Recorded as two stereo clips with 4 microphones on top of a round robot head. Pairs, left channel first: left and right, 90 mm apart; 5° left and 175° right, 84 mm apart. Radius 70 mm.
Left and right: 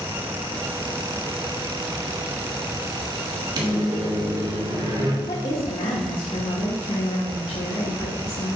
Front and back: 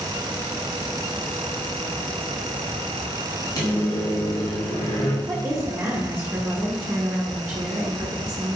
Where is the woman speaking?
125° left, 1.3 m.